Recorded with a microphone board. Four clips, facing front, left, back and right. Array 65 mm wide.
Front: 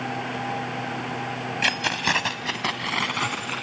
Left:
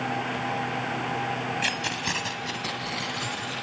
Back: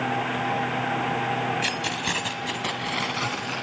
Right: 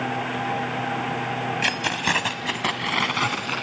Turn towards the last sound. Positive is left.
turn(degrees=-70)